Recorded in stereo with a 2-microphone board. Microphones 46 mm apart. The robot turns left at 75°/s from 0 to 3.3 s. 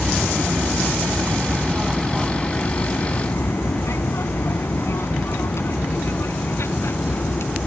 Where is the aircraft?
25° right (ahead or behind); by 7.7 s 60° left (ahead or behind).